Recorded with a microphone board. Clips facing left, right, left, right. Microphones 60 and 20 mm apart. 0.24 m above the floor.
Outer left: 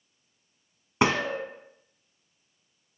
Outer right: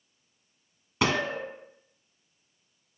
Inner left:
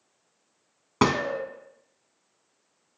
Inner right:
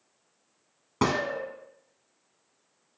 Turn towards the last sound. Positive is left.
turn(degrees=30)  # may be behind; listen again after turning